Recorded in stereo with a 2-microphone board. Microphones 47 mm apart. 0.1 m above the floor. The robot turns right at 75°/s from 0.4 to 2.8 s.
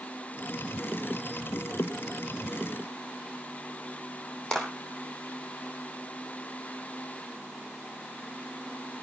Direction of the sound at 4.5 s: 20° left (ahead or behind).